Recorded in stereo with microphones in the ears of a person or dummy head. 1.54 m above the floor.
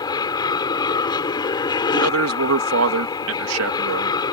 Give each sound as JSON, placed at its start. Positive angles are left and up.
{"t": 0.0, "sound": "an aircraft", "side_deg": 25}
{"t": 1.9, "sound": "a man speaking", "side_deg": -80}